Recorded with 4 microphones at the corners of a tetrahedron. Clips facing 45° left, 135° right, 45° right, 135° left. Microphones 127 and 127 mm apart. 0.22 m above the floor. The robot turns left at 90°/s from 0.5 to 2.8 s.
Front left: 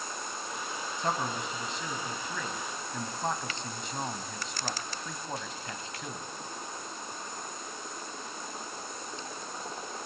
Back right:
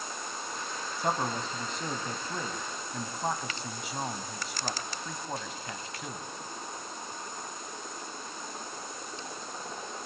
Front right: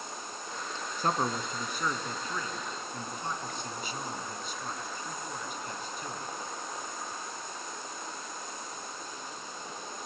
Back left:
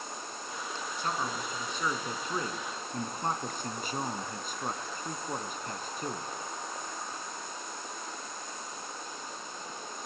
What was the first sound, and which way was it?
A man speaking, 55° right.